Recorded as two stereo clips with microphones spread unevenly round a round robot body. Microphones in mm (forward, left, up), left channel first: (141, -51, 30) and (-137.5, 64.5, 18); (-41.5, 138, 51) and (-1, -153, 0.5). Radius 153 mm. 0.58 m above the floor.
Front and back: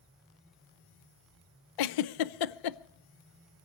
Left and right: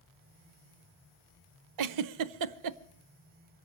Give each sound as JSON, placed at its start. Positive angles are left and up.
{"t": 1.8, "sound": "a giggle", "azimuth_deg": -45, "distance_m": 0.6}